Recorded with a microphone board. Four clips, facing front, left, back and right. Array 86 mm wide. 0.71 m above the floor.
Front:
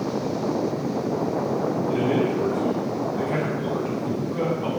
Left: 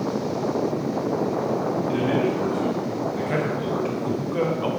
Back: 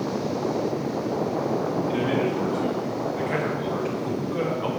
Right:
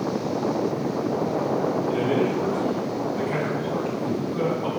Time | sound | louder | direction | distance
1.9 | a man speaking | left 2 dB, front 3 dB | 125° left | 5.5 m